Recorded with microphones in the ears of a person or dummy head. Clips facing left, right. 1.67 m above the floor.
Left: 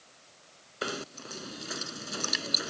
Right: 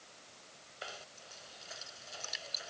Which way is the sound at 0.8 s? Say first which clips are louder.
Left 14 dB; 65° left (ahead or behind).